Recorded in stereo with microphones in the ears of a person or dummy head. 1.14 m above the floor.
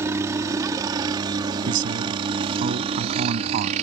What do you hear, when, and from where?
0.0 s a helicopter: 15° right (ahead or behind); by 3.8 s 40° right (ahead or behind)
1.6 s a man speaking: 50° right (ahead or behind)